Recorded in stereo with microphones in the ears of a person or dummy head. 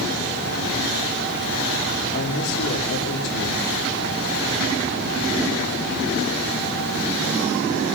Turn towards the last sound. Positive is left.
turn(degrees=70)  # may be behind; listen again after turning